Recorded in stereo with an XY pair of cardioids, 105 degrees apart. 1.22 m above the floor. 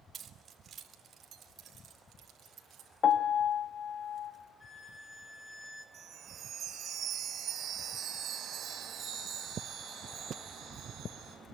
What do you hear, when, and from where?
0.1 s keys jangling: 45° right, 2.5 m; by 2.9 s 55° right, 6.5 m
3.0 s a piano: 50° left, 1.5 m
4.6 s a violin: 30° left, 4 m
5.9 s a chime: 55° right, 7.5 m